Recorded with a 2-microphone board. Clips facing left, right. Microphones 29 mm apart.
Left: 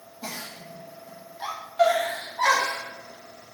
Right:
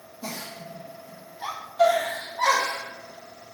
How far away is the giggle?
About 0.8 m.